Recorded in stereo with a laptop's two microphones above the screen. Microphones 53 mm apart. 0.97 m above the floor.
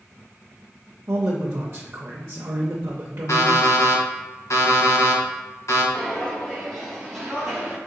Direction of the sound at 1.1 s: 45° right (ahead or behind).